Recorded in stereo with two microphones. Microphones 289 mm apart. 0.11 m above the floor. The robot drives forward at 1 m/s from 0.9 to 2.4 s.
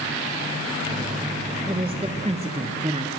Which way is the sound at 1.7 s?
20° right (ahead or behind).